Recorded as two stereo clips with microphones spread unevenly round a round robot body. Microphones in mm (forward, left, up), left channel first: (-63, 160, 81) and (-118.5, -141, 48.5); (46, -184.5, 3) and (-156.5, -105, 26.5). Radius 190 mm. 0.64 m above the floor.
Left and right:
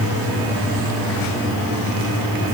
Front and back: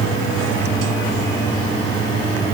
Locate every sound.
Only background noise.